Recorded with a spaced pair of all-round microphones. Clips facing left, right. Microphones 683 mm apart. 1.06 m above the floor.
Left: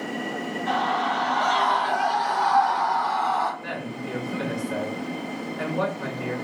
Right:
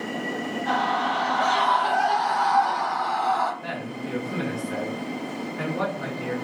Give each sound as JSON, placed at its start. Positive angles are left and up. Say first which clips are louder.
{"t": 0.7, "sound": "a scream", "louder": "even", "side_deg": -65, "distance_m": 1.9}
{"t": 3.6, "sound": "a man speaking", "louder": "even", "side_deg": -70, "distance_m": 2.0}